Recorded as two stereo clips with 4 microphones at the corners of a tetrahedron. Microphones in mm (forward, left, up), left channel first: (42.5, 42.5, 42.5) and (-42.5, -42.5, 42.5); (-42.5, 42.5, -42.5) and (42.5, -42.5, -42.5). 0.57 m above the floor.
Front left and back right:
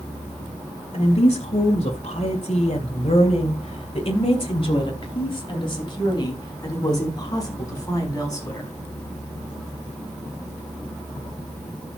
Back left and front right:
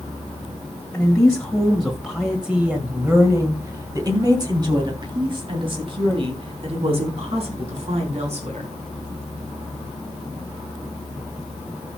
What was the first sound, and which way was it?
A woman speaking, 60° left.